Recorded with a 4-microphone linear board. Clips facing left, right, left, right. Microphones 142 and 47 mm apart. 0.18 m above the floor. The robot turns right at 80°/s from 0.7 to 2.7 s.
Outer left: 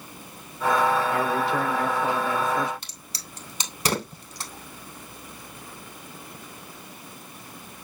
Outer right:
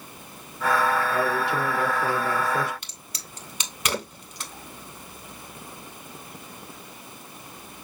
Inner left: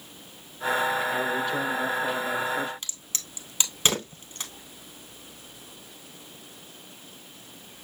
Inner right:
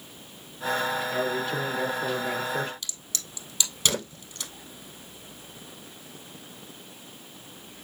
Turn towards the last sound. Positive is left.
turn(degrees=35)  # may be behind; listen again after turning